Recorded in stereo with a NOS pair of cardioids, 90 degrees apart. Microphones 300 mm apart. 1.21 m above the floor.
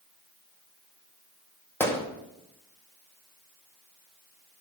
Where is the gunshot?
10° left, 2 m.